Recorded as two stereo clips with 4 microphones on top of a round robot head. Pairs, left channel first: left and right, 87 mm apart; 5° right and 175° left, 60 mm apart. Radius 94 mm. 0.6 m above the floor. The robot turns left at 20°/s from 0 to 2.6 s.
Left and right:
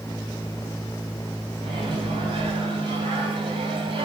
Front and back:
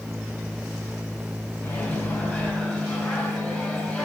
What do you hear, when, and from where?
1.6 s a microwave: 60° right, 1.7 m; by 4.1 s 80° right, 1.7 m